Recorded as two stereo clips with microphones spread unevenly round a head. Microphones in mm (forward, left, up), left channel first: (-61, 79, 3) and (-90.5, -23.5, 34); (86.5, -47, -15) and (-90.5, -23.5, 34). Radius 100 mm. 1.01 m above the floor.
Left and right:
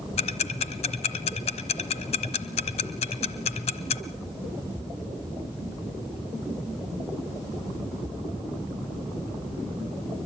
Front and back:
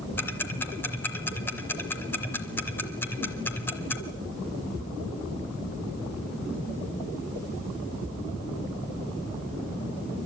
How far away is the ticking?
About 1.1 m.